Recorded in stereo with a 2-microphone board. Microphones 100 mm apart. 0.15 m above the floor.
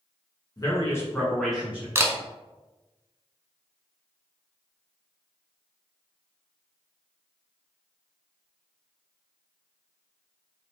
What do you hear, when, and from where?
0.6 s a man speaking: 35° left (ahead or behind), 1.4 m; by 1.9 s 20° right (ahead or behind), 1.0 m
1.9 s a camera shutter: 25° right (ahead or behind), 0.6 m